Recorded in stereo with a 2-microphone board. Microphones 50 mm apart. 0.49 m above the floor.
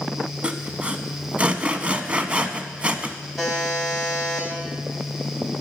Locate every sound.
0.4 s sawing: 25° right (ahead or behind), 0.7 m
3.4 s a buzzer: 5° right (ahead or behind), 3 m